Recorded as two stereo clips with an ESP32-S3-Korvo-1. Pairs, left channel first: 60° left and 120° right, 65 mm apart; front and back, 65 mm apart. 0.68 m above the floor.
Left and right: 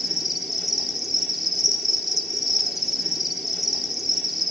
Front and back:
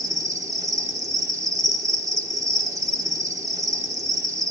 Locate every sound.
0.0 s an insect: 150° left, 0.9 m